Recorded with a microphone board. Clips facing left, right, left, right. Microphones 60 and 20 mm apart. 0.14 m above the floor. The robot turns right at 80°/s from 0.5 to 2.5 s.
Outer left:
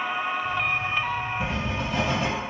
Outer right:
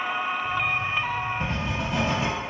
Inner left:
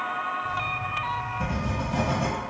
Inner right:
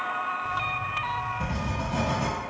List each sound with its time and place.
1.4 s writing: 10° left (ahead or behind), 0.9 m; by 2.3 s 20° right (ahead or behind), 0.9 m